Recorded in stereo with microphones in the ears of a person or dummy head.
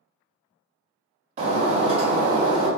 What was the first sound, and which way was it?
Breaking glass, 30° right (ahead or behind).